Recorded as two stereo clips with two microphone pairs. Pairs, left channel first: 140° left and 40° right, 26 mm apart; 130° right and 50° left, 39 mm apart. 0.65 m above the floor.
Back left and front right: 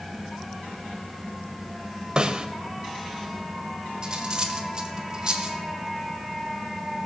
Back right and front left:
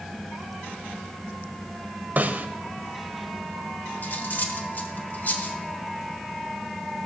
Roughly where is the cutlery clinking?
Right.